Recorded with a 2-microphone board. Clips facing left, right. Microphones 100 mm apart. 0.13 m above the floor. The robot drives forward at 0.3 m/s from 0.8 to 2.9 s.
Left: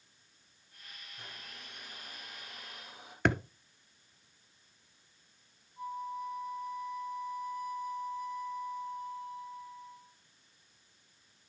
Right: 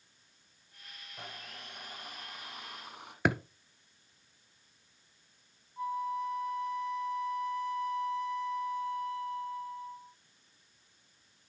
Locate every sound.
1.2 s a blender: 65° right (ahead or behind), 3.5 m; by 3.1 s 75° right (ahead or behind), 3 m
3.2 s a thud: 5° right (ahead or behind), 0.6 m
5.8 s a flute: 65° right (ahead or behind), 1.0 m